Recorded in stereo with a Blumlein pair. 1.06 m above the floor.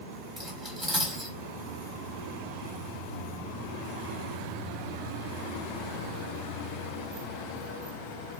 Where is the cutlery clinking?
15° right, 1.6 m.